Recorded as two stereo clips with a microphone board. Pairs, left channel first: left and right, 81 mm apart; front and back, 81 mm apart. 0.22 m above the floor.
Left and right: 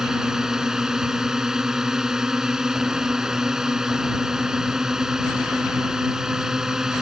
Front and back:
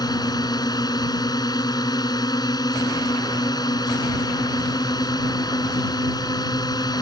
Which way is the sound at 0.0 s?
10° right.